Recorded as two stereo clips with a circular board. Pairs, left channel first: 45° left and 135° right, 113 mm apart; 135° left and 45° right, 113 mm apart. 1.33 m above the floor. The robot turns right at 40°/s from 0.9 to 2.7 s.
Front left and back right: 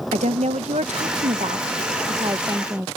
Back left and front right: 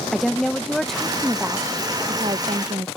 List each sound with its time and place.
0.1 s a woman speaking: 140° right; by 2.9 s 65° right